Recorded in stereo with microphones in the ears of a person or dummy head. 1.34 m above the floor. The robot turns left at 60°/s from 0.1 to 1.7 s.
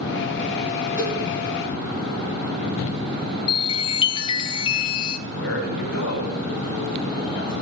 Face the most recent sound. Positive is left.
turn(degrees=80)